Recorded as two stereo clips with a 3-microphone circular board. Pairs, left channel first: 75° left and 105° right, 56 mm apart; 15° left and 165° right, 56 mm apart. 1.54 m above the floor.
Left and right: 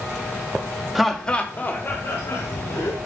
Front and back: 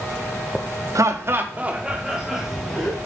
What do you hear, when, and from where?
0.9 s laughter: 170° left, 0.5 m; by 3.0 s 105° left, 1.4 m